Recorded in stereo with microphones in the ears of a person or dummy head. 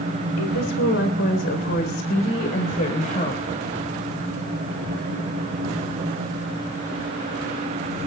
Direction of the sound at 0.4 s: 65° left (ahead or behind).